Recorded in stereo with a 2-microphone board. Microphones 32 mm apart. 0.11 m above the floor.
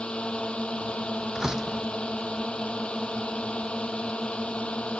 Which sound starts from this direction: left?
A drone, at 0.0 s.